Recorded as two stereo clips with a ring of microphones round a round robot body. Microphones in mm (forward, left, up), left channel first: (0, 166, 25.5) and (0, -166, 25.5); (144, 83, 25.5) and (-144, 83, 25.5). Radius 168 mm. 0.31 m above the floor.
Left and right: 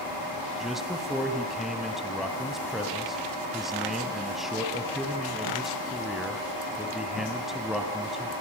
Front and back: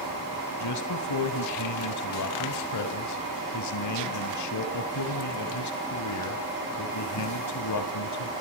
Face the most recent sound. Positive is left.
turn(degrees=0)